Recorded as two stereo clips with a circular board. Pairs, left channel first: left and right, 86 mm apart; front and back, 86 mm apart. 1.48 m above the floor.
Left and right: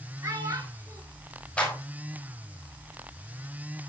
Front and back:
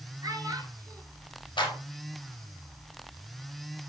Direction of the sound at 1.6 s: 15° left.